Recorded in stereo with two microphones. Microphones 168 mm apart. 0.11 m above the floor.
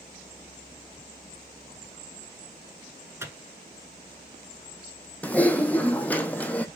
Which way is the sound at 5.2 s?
10° left (ahead or behind).